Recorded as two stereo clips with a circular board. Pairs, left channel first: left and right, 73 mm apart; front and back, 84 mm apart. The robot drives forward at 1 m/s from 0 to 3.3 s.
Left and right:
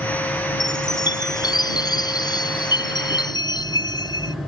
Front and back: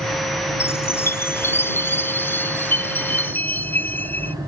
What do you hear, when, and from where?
0.6 s a chime: 60° left; by 4.3 s 70° left